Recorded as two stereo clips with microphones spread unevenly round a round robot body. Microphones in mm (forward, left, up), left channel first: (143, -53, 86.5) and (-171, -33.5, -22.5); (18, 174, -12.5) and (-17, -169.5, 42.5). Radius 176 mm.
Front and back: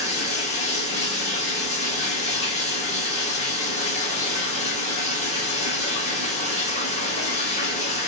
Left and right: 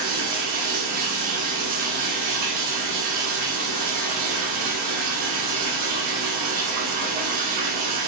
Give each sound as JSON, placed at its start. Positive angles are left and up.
{"t": 0.0, "sound": "running water", "azimuth_deg": -80, "distance_m": 1.1}